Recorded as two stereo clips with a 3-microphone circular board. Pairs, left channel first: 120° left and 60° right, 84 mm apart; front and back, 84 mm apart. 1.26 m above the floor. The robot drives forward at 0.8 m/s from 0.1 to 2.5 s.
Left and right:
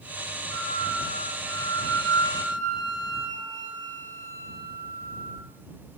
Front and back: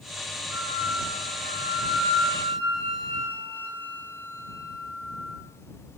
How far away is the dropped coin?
No dropped coin in this recording.